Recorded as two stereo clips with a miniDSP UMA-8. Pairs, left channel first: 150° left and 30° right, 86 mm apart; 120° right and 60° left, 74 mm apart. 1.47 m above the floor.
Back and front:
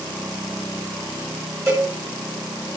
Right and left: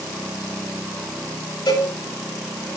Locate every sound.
1.7 s a cowbell: 90° right, 9.5 m